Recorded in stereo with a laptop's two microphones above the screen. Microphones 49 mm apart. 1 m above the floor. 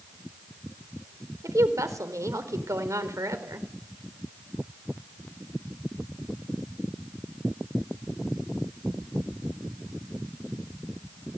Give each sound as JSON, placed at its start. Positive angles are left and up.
{"t": 1.4, "sound": "a woman speaking", "side_deg": -80, "distance_m": 4.0}